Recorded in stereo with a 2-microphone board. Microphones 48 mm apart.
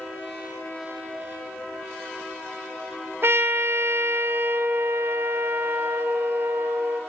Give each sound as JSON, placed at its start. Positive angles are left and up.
{"t": 3.2, "sound": "a trumpet", "side_deg": -55, "distance_m": 1.0}